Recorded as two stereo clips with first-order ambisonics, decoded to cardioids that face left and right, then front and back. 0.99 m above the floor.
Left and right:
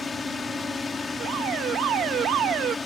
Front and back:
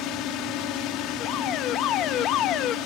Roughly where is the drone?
Ahead.